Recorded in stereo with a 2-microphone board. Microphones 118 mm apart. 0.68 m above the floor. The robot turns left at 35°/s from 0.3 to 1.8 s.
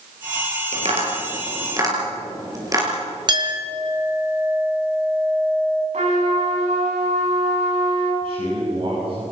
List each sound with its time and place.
0.7 s tapping: 65° right (ahead or behind), 5.5 m; by 2.9 s 30° right (ahead or behind), 5.5 m
3.3 s a clink: 40° right (ahead or behind), 2 m
5.9 s a trumpet: 80° right, 6 m
8.2 s a man speaking: 50° right (ahead or behind), 7 m